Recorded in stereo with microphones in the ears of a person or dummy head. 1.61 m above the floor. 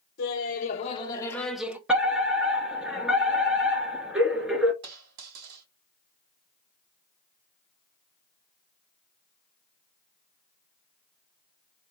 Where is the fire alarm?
5° right (ahead or behind), 1.3 m.